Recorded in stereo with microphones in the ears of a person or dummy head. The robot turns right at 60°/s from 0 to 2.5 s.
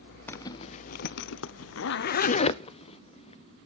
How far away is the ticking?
No ticking in this recording.